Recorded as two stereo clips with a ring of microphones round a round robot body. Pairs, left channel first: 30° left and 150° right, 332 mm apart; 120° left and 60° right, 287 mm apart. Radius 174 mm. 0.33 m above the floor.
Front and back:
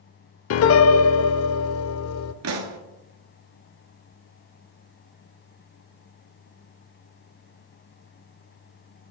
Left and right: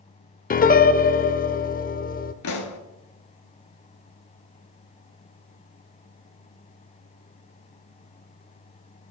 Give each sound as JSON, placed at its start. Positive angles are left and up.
{"t": 0.5, "sound": "a piano", "azimuth_deg": 65, "distance_m": 0.6}
{"t": 2.4, "sound": "a pop", "azimuth_deg": 165, "distance_m": 1.0}